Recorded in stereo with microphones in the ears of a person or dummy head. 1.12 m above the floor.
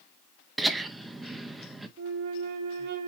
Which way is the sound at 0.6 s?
5° right (ahead or behind).